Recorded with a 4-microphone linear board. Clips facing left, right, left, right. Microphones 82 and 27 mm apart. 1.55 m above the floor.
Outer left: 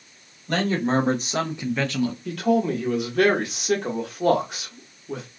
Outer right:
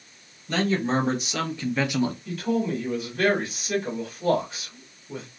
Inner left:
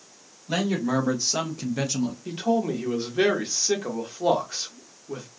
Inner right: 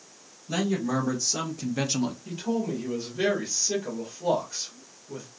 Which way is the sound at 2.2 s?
65° left (ahead or behind).